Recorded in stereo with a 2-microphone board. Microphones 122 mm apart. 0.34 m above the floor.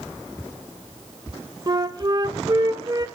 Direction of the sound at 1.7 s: 35° right (ahead or behind).